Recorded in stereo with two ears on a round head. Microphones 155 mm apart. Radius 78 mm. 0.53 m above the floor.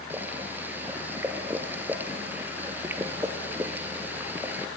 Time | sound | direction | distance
0.1 | boiling | 10° right (ahead or behind) | 1.8 m